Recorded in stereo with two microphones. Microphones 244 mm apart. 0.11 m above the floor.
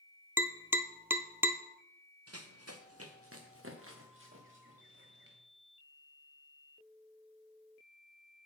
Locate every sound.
0.4 s tapping: 10° right (ahead or behind), 0.6 m
2.3 s running footsteps: 80° right, 1.1 m; by 5.3 s 50° right (ahead or behind), 4 m